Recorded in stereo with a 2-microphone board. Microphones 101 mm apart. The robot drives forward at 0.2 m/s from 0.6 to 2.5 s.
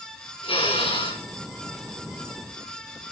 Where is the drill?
65° left (ahead or behind), 8 m.